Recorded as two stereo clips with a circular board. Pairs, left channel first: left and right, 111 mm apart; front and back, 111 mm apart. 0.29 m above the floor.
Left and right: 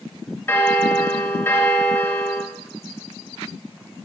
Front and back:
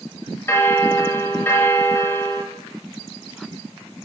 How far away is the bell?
About 0.9 m.